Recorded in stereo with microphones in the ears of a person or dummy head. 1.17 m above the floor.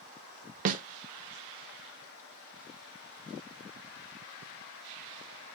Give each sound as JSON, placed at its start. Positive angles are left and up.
{"t": 0.7, "sound": "a snare drum", "side_deg": -40, "distance_m": 0.5}